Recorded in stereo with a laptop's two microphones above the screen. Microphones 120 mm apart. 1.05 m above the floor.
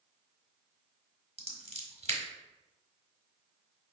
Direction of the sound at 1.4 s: 60° right (ahead or behind).